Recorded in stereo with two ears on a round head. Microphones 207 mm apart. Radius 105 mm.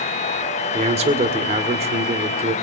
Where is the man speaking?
25° right (ahead or behind), 1.8 m.